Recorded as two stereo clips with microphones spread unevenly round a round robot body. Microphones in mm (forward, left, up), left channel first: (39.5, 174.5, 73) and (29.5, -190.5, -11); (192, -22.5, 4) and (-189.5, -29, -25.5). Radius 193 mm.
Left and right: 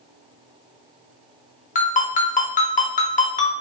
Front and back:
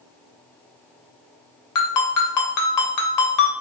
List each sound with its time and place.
1.8 s a ringtone: 15° left, 0.6 m